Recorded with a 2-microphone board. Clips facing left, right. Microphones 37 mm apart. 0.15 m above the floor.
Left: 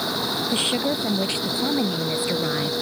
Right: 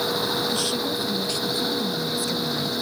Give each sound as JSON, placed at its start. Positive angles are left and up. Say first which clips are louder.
{"t": 0.5, "sound": "a woman speaking", "louder": "left 2 dB", "side_deg": 40}